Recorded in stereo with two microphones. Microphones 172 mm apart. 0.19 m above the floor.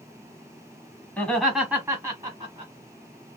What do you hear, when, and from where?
1.2 s laughter: 10° left (ahead or behind), 1.1 m; by 2.7 s 35° right (ahead or behind), 1.3 m